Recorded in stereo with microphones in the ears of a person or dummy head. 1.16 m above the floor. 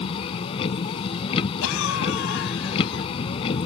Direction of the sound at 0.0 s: 35° left (ahead or behind).